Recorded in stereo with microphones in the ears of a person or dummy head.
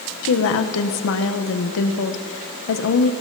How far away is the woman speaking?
About 1.3 m.